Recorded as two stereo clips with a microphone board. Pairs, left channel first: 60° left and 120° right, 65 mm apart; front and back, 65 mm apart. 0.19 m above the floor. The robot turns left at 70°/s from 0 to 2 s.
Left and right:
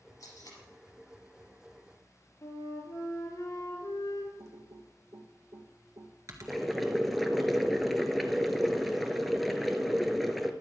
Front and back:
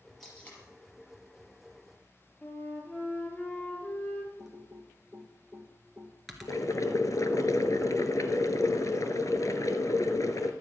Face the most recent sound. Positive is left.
turn(degrees=-30)